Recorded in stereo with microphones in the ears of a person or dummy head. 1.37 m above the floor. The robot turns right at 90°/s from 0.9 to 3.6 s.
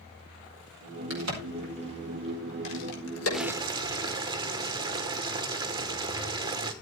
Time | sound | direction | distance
1.1 | a crack | 75° right (ahead or behind) | 5 m
3.3 | boiling | 5° left (ahead or behind) | 1.1 m